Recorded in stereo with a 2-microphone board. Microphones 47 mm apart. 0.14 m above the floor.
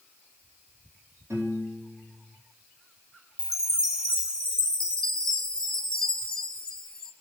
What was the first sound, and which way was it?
A piano, 80° right.